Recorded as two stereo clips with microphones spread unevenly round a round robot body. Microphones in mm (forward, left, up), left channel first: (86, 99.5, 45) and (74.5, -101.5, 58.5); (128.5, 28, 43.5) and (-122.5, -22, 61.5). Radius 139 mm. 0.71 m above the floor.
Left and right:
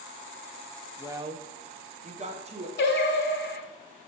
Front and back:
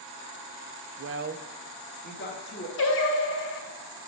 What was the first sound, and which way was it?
A woman speaking, straight behind.